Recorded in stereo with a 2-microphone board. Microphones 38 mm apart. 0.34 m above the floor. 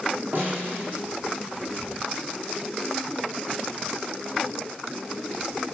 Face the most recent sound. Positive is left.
turn(degrees=-60)  # may be behind; listen again after turning